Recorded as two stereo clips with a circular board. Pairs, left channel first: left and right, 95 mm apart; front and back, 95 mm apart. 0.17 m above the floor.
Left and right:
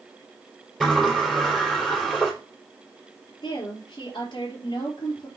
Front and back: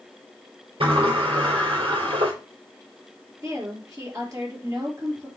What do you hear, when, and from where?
0.8 s a sliding door: straight behind, 4.5 m
3.4 s a woman speaking: 125° left, 3.5 m